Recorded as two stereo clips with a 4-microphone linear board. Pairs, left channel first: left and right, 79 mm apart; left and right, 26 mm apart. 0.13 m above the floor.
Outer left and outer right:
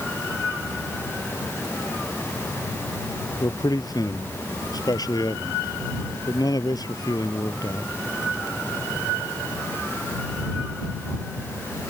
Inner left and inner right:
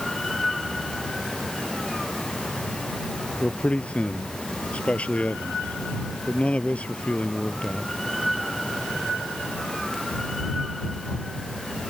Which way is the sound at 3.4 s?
55° left (ahead or behind).